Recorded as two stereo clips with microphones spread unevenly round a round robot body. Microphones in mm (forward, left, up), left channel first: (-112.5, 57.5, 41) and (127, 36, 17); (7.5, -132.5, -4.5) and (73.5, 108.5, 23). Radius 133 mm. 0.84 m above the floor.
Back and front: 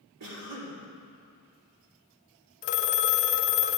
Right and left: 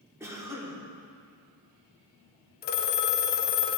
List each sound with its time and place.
0.2 s a cough: 10° right, 2.5 m
2.6 s a phone ringing: 145° right, 0.5 m